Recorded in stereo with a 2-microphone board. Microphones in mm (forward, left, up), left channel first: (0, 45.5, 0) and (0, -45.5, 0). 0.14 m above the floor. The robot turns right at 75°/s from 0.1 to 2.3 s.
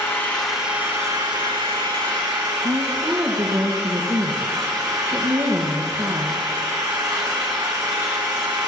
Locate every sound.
0.0 s an engine running: 150° left, 3.5 m; by 8.7 s 45° right, 3.5 m
2.6 s a woman speaking: 50° right (ahead or behind), 2 m